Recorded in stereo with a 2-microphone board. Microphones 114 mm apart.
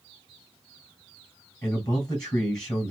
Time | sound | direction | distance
1.6 | a man speaking | 35° left (ahead or behind) | 3 m